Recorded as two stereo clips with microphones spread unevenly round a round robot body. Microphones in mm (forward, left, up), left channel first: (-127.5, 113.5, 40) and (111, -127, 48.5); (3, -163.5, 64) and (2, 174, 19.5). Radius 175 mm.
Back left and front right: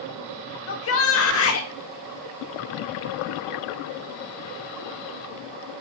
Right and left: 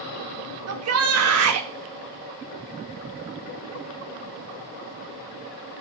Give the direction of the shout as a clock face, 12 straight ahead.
9 o'clock.